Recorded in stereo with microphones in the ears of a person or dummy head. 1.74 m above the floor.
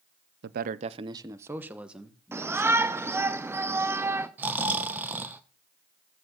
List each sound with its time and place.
0.4 s a man speaking: 70° right (ahead or behind), 0.8 m; by 3.3 s centre (ahead or behind), 3.5 m
2.3 s a shout: 10° right (ahead or behind), 1.0 m
4.4 s snoring: 15° right (ahead or behind), 1.2 m